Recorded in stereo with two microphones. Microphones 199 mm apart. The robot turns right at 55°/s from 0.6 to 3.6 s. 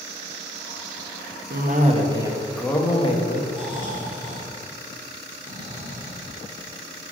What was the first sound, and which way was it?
A cough, 55° right.